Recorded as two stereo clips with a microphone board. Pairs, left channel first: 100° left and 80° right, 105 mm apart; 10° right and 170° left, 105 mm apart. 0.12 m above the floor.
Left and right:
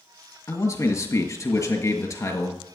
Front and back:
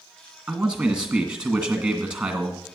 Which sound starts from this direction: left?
A man speaking, at 0.5 s.